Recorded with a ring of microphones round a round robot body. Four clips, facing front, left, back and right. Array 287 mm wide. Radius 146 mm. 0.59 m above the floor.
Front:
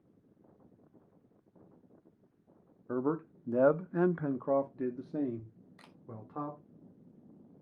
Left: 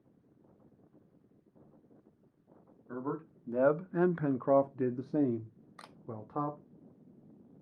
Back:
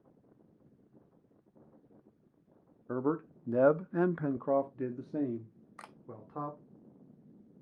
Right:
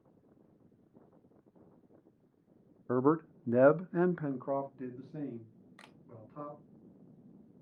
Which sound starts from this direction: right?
A man speaking, at 2.9 s.